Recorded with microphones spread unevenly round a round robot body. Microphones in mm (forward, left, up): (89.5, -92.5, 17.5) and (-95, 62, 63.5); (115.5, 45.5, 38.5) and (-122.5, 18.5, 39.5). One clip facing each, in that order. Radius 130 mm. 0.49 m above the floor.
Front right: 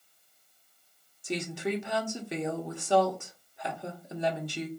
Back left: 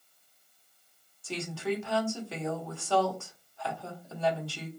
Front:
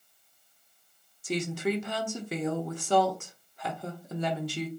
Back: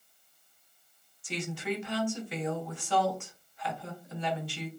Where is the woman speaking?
10° left, 0.9 m.